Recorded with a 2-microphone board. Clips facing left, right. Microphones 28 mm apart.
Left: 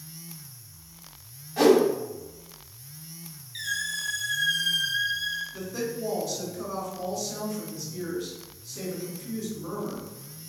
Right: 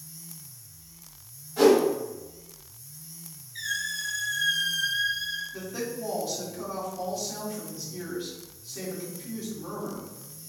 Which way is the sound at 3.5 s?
60° left (ahead or behind).